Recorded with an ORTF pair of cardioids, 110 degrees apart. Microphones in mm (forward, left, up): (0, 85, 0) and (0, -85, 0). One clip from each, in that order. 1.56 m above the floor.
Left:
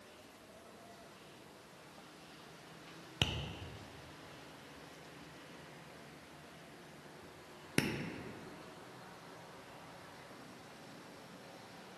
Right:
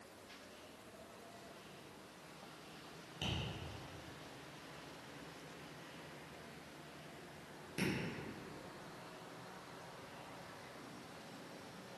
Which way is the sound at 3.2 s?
70° left.